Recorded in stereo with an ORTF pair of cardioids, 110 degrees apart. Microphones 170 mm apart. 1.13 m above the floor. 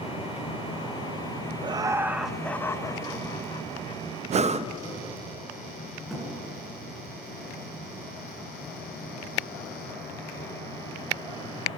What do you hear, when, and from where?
1.6 s laughter: 30° right, 1.3 m; by 4.0 s 45° left, 2 m
4.3 s breathing: 45° right, 0.7 m
6.1 s a thud: straight ahead, 7.5 m